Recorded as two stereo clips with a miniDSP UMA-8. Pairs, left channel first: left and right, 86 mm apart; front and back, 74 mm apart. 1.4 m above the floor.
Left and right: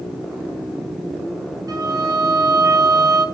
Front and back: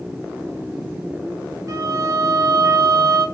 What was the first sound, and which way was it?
A violin, 135° right.